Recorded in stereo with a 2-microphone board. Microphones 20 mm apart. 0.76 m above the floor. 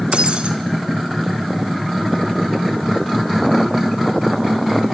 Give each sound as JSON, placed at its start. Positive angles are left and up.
{"t": 0.1, "sound": "breaking glass", "side_deg": -65, "distance_m": 3.5}